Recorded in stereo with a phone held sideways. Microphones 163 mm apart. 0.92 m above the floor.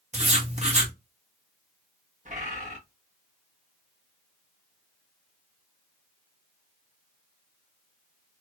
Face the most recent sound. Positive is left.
turn(degrees=-45)  # may be behind; listen again after turning